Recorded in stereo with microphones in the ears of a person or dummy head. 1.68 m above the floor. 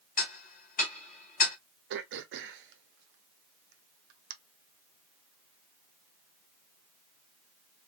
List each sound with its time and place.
0.2 s ticking: 45° left (ahead or behind), 0.8 m
1.9 s throat clearing: 65° right (ahead or behind), 0.6 m